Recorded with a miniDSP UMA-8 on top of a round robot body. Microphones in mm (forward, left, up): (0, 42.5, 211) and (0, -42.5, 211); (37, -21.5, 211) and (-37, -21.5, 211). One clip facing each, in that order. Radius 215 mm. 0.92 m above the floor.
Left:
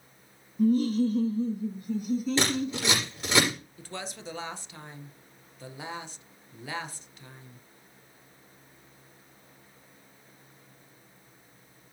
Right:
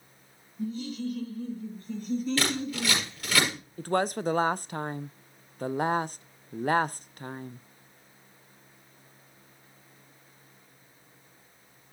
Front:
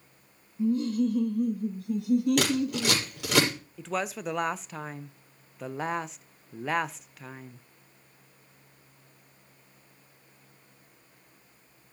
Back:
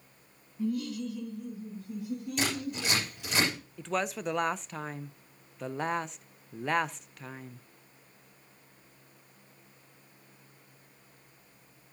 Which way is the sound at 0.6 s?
70° left.